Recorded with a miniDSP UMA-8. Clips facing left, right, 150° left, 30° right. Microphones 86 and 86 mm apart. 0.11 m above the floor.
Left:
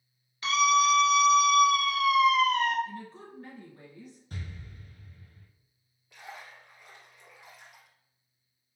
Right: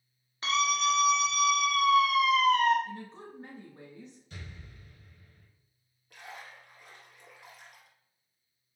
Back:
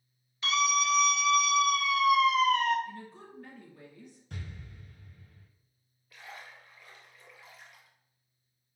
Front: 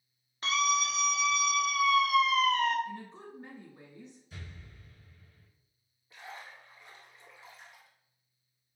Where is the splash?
85° right, 1.5 m.